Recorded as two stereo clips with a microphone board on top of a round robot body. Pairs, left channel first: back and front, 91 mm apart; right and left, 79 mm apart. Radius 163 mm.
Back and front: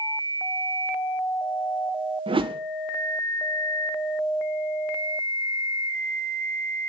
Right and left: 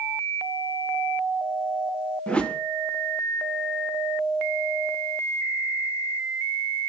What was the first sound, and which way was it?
A whoosh, 15° right.